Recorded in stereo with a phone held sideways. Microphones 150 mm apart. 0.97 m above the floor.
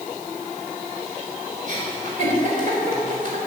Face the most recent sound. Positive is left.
turn(degrees=-55)  # may be behind; listen again after turning